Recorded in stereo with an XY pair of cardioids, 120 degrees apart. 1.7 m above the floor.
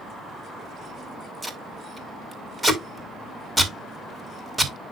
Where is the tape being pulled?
10° right, 4 m.